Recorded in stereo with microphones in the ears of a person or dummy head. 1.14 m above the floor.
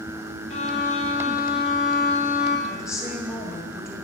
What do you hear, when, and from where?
0.5 s a violin: 35° left (ahead or behind), 0.6 m
2.7 s a woman speaking: 5° right (ahead or behind), 1.4 m